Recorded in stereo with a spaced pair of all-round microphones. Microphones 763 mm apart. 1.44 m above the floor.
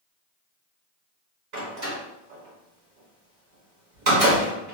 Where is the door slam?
65° right (ahead or behind), 1.4 m.